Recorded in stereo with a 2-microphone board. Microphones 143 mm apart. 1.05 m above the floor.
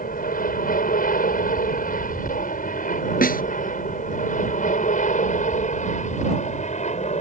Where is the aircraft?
75° left (ahead or behind); by 7.2 s 55° left (ahead or behind).